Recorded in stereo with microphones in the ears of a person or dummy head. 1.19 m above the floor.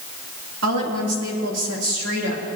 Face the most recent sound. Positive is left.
turn(degrees=-75)  # may be behind; listen again after turning